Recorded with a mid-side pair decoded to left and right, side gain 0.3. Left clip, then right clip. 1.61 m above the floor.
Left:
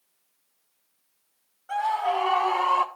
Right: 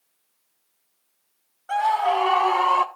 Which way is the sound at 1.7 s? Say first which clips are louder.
Right 4 dB; 60° right.